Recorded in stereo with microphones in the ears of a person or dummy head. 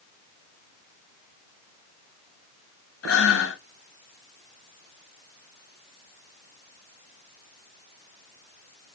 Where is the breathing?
90° left, 1.3 m.